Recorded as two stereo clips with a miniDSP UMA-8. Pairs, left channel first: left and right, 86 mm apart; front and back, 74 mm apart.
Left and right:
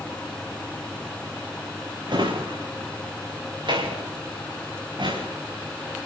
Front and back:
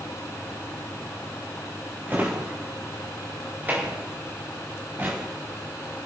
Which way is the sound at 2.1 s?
115° right.